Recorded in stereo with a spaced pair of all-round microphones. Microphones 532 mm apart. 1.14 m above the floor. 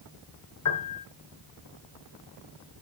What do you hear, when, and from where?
0.7 s a piano: 40° left (ahead or behind), 2 m